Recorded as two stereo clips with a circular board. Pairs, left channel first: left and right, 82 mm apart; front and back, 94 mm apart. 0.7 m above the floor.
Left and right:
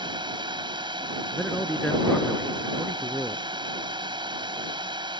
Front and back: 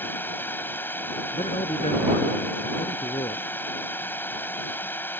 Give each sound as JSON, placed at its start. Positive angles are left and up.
{"t": 0.0, "sound": "a drone", "azimuth_deg": -70}
{"t": 1.3, "sound": "a man speaking", "azimuth_deg": 5}